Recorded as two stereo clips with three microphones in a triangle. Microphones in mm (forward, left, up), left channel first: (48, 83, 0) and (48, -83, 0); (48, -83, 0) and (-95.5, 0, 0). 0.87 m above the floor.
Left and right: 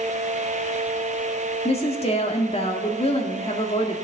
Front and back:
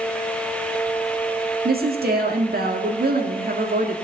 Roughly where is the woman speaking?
Behind left.